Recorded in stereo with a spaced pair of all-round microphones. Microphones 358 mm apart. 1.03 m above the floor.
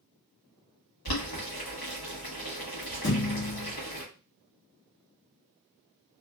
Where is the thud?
35° left (ahead or behind), 1.2 m.